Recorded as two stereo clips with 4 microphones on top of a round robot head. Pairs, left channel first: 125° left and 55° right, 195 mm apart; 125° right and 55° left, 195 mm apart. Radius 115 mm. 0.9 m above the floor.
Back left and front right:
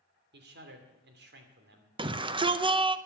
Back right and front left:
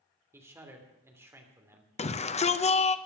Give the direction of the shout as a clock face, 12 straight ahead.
3 o'clock.